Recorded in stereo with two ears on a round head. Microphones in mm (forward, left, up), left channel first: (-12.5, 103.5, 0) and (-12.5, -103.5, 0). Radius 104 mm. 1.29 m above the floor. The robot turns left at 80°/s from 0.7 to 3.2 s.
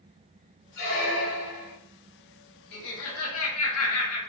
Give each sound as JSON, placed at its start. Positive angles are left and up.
{"t": 0.8, "sound": "a squeak", "azimuth_deg": 125, "distance_m": 0.7}
{"t": 2.7, "sound": "laughter", "azimuth_deg": 125, "distance_m": 1.0}